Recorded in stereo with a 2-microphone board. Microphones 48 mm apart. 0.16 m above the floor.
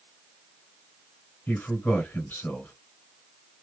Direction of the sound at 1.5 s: 40° left (ahead or behind).